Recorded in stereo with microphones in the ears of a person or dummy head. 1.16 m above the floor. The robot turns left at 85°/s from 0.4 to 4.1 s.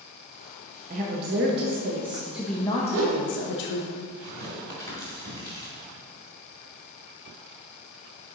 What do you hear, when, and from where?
0.9 s a woman speaking: 45° right, 0.8 m; by 3.9 s 60° left, 0.8 m
2.9 s a whoosh: 55° right (ahead or behind), 1.5 m; by 3.2 s 70° right (ahead or behind), 1.5 m
4.2 s tearing paper: 20° left (ahead or behind), 2.5 m